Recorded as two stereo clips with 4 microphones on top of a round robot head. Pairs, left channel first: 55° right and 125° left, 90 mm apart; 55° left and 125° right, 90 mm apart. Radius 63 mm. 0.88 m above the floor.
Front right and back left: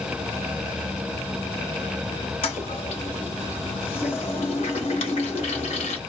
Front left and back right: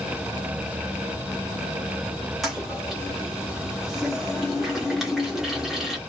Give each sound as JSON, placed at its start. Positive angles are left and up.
{"t": 2.4, "sound": "a toilet flushing", "azimuth_deg": -35, "distance_m": 1.0}